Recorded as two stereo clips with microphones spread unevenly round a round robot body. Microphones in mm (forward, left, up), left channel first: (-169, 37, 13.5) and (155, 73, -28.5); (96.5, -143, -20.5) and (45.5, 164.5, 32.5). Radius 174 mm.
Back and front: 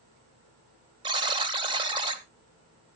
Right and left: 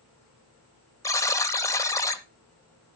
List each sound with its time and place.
1.0 s a buzzer: 35° right, 0.9 m